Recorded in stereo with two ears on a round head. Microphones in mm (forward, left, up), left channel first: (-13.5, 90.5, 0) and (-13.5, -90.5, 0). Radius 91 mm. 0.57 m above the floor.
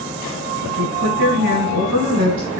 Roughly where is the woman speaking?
Right.